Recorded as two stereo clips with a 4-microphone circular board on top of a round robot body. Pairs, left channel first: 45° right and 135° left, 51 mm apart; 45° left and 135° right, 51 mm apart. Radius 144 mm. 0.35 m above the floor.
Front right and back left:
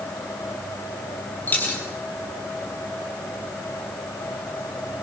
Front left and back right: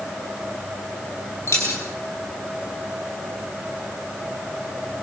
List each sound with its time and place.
1.5 s a dropped coin: 10° left, 6 m